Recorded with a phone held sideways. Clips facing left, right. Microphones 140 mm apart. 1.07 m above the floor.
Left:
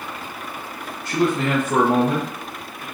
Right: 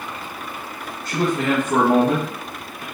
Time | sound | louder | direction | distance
1.1 | a man speaking | even | 50° right (ahead or behind) | 1.7 m